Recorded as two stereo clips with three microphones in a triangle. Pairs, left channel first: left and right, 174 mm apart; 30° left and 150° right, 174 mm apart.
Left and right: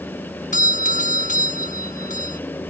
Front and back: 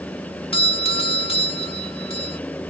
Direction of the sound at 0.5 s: 75° left.